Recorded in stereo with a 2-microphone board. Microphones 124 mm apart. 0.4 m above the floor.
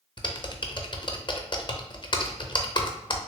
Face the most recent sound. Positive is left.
turn(degrees=40)  # may be behind; listen again after turning